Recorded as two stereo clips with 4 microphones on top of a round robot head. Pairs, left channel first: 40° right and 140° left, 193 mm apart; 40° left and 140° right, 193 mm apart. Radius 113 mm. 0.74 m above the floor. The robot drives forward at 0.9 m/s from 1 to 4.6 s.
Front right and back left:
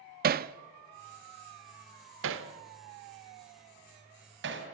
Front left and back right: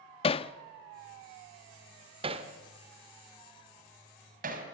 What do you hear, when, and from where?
0.2 s hammering: 100° left, 0.6 m; by 4.7 s 170° left, 3.5 m